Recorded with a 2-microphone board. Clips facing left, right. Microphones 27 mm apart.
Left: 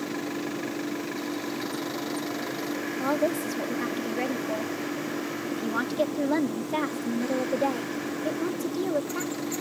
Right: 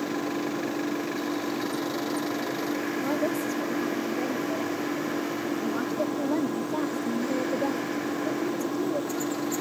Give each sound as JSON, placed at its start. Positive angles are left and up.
{"t": 0.0, "sound": "an engine running", "side_deg": -65}
{"t": 3.0, "sound": "a woman speaking", "side_deg": 80}